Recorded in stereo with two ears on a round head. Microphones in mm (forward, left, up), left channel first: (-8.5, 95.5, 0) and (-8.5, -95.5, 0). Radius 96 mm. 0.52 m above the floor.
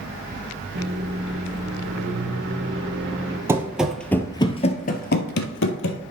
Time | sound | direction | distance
0.8 | a microwave | 55° right (ahead or behind) | 1.4 m
3.5 | running footsteps | 15° right (ahead or behind) | 0.9 m